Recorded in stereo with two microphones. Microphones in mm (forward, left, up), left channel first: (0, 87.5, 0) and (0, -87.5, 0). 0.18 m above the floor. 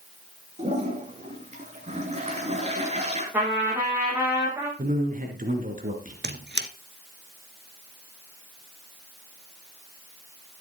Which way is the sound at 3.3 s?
10° right (ahead or behind).